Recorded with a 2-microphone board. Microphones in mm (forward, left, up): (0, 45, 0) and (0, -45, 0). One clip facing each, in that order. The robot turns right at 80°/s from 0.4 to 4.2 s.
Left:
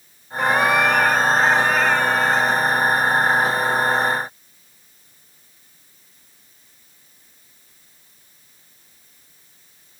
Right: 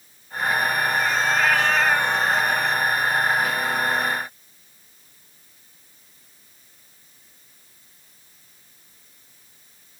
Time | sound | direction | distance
0.4 | a cat meowing | 65° left | ?